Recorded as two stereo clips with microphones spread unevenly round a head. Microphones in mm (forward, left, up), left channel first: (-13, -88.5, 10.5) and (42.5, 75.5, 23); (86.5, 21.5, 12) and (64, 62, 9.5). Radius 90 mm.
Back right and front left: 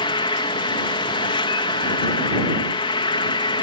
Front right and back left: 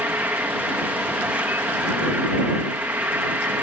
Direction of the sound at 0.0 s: 170° right.